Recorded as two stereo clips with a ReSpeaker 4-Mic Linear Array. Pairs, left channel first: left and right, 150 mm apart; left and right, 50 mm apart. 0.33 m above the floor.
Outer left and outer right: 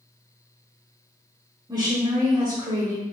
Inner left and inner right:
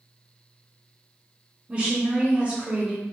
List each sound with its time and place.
1.7 s a woman speaking: 25° right (ahead or behind), 0.9 m